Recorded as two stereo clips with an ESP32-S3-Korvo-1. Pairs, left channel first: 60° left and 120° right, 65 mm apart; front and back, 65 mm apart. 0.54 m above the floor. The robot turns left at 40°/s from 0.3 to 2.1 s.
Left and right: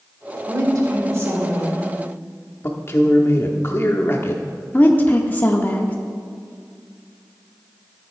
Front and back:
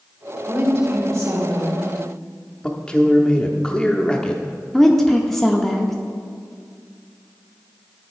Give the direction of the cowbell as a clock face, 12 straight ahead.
I don't hear a cowbell.